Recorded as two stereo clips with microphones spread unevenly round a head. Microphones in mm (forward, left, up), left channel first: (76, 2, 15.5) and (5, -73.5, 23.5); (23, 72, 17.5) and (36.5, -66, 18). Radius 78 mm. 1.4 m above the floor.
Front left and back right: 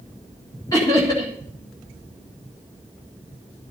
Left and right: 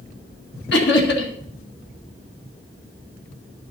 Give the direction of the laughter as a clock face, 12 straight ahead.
8 o'clock.